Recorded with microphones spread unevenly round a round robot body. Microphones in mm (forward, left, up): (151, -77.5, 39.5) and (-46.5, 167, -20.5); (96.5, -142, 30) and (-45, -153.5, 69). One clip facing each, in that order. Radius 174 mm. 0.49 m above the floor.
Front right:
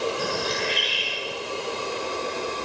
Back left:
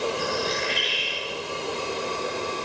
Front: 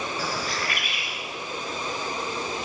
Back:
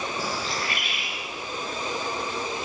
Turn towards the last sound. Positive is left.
turn(degrees=-110)